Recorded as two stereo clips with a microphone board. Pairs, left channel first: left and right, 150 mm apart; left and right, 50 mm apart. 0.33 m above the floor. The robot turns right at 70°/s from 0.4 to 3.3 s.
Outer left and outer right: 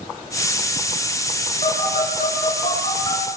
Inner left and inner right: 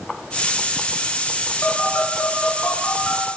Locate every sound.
1.6 s a phone buzzing: 45° left (ahead or behind), 5.5 m; by 3.2 s 20° left (ahead or behind), 5.5 m